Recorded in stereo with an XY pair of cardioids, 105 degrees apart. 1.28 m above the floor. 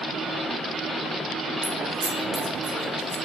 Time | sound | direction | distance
1.6 | keys jangling | 70° right | 1.1 m